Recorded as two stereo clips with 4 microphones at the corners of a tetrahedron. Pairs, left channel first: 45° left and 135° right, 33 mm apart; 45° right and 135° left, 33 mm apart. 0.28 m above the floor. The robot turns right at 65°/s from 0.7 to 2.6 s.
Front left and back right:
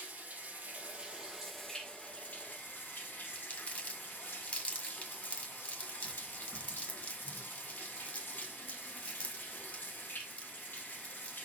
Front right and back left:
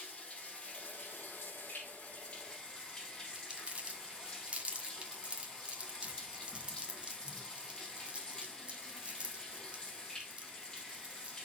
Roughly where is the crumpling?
Left.